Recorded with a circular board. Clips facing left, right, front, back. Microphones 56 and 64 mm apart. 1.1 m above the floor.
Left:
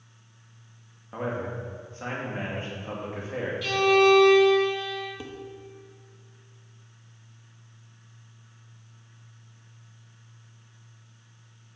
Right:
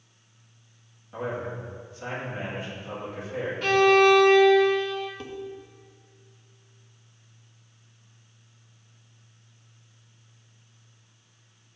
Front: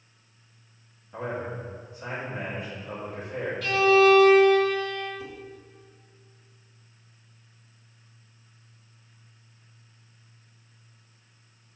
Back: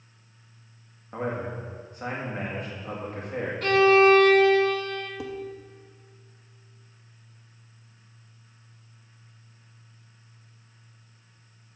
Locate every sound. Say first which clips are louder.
1.1 s a man speaking: left 1 dB, back 2 dB; 140° left, 1.9 m
3.6 s a violin: right 2 dB, back 1 dB; 135° right, 0.6 m
5.2 s dishes clattering: right 1 dB, back 5 dB; 170° left, 0.6 m